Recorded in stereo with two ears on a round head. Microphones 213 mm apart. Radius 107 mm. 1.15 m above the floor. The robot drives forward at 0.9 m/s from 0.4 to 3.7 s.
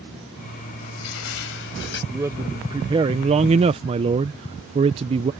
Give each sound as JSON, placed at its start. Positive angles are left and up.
{"t": 0.8, "sound": "crushing", "side_deg": 70}
{"t": 2.1, "sound": "a man speaking", "side_deg": -10}